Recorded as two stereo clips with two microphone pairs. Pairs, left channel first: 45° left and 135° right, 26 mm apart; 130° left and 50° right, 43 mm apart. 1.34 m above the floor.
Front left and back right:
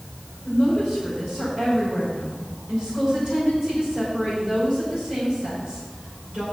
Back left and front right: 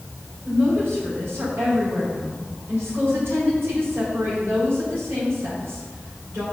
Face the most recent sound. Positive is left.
turn(degrees=-80)